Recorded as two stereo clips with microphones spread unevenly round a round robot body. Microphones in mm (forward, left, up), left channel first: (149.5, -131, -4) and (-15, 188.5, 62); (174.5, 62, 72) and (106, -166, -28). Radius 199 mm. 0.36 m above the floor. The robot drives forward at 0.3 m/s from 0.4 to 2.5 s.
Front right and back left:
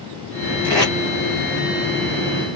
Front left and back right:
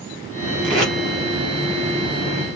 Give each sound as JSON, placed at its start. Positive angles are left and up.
{"t": 0.6, "sound": "tape being pulled", "azimuth_deg": -150, "distance_m": 0.7}